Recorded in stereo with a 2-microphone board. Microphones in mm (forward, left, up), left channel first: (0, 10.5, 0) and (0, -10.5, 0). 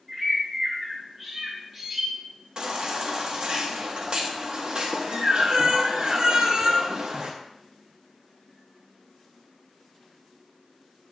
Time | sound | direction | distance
0.1 | a bird | 10° right (ahead or behind) | 2.5 m
2.6 | a baby crying | 50° right (ahead or behind) | 1.1 m